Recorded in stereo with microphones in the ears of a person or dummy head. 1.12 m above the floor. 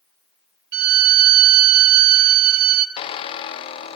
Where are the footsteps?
No footsteps in this recording.